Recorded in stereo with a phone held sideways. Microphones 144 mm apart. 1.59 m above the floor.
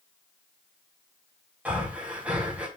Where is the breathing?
10° right (ahead or behind), 4 m.